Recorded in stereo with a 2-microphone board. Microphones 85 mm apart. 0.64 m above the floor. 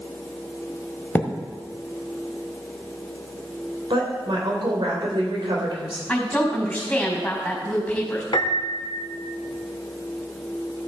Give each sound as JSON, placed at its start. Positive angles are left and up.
{"t": 1.1, "sound": "a thud", "side_deg": 20, "distance_m": 1.1}
{"t": 3.9, "sound": "a woman speaking", "side_deg": -70, "distance_m": 3.0}
{"t": 6.1, "sound": "a woman speaking", "side_deg": 15, "distance_m": 4.0}
{"t": 8.3, "sound": "a piano", "side_deg": 65, "distance_m": 1.1}